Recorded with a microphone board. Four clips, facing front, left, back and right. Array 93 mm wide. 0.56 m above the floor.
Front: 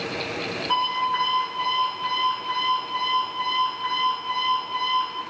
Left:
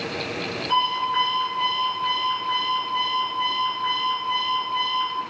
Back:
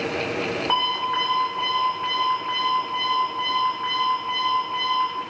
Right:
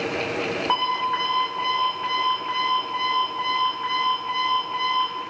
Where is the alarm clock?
130° right, 2.5 m.